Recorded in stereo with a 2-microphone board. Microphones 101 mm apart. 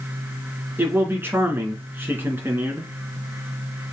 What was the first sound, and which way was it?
A man speaking, 20° right (ahead or behind).